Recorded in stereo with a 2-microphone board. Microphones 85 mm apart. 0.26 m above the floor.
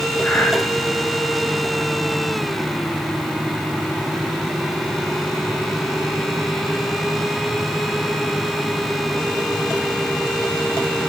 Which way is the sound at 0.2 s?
20° left (ahead or behind).